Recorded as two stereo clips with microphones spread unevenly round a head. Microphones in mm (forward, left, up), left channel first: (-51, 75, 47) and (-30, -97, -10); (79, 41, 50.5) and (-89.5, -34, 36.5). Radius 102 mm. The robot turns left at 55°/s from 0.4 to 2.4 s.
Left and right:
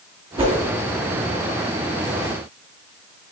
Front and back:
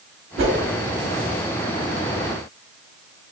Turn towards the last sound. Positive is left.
turn(degrees=105)